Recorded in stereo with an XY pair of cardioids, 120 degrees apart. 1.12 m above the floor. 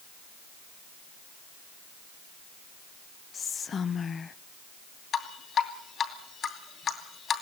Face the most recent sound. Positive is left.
turn(degrees=45)